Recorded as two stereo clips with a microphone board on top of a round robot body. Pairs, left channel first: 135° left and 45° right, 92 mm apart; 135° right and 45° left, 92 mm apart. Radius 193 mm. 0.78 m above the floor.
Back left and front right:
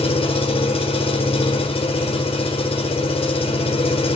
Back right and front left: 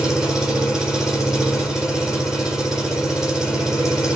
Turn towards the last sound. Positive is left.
turn(degrees=130)